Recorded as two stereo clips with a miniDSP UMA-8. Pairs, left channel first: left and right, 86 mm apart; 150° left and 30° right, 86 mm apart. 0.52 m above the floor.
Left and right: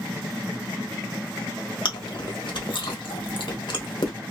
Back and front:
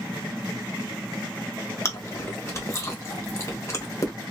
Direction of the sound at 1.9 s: 95° left.